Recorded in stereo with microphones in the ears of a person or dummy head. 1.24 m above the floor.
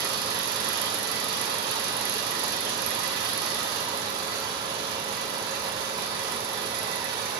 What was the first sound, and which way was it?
An engine running, 60° right (ahead or behind).